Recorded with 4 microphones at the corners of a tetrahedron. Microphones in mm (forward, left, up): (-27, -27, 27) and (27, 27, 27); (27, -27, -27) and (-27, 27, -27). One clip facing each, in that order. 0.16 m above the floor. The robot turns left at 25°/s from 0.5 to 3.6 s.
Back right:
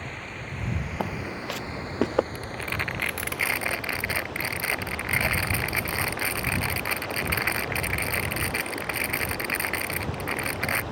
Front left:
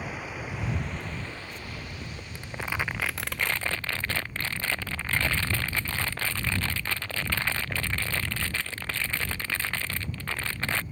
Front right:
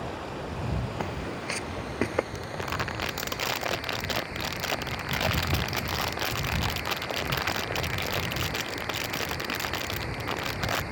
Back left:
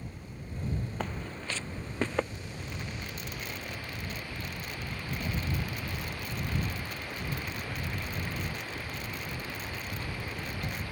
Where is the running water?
40° right; by 10.9 s 115° right.